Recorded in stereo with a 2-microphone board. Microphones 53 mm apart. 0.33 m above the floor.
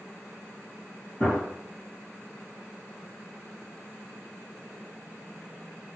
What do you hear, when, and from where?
1.2 s a gunshot: 25° left (ahead or behind), 1.9 m